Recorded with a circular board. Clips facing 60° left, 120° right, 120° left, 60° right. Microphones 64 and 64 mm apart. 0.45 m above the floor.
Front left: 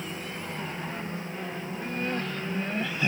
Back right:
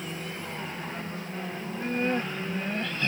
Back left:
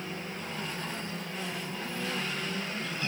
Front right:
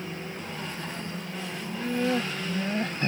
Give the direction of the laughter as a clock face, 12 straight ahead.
2 o'clock.